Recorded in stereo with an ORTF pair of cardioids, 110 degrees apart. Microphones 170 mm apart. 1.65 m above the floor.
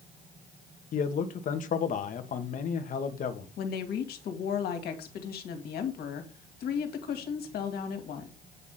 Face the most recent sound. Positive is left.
turn(degrees=70)